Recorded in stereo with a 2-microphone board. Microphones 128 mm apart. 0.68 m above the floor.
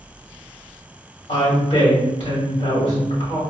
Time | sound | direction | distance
1.3 | a woman speaking | 55° left (ahead or behind) | 1.8 m